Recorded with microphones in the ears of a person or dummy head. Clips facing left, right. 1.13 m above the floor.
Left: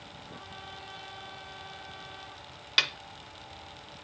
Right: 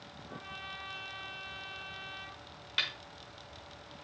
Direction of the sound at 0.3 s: 35° right (ahead or behind).